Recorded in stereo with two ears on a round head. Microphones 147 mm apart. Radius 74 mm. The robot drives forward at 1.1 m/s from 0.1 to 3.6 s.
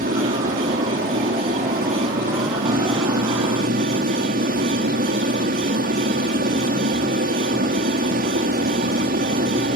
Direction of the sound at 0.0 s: 50° right (ahead or behind).